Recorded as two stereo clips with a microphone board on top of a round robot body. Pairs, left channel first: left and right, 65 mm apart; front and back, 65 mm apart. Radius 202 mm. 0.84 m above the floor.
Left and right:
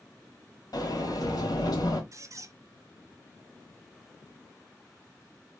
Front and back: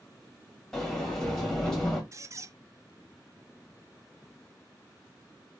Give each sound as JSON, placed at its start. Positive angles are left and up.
{"t": 0.7, "sound": "a sliding door", "azimuth_deg": 85, "distance_m": 1.7}
{"t": 2.1, "sound": "a squeak", "azimuth_deg": -130, "distance_m": 0.6}